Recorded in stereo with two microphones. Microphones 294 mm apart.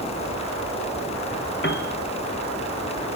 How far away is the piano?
About 1.2 m.